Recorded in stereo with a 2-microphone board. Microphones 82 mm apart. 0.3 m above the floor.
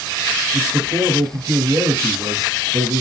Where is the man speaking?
45° right (ahead or behind), 1.9 m.